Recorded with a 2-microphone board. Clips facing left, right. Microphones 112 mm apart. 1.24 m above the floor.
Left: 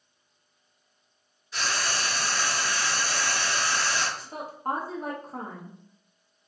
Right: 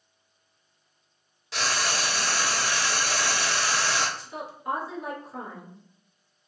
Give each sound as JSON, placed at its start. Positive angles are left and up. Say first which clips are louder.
{"t": 1.5, "sound": "frying", "louder": "right 2 dB", "side_deg": -70, "distance_m": 0.6}
{"t": 4.2, "sound": "a woman speaking", "louder": "left 1 dB", "side_deg": 40, "distance_m": 1.0}